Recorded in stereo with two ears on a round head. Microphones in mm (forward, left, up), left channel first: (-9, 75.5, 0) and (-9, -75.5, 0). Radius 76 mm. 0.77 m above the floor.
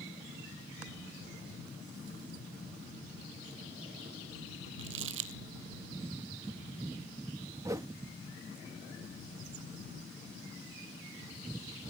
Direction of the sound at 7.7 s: 20° right (ahead or behind).